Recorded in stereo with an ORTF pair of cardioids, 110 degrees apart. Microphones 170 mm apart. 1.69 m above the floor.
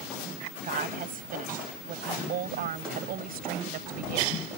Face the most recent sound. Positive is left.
turn(degrees=-65)